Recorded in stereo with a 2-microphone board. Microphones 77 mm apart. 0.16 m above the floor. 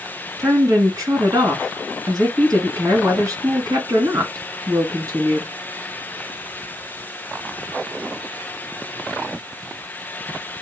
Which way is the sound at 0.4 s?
50° right (ahead or behind).